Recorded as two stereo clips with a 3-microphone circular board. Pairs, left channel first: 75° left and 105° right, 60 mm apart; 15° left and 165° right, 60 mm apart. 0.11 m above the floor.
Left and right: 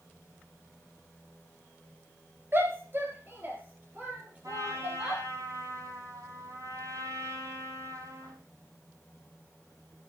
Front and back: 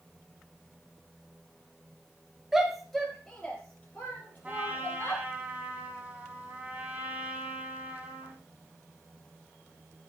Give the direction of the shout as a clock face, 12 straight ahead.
3 o'clock.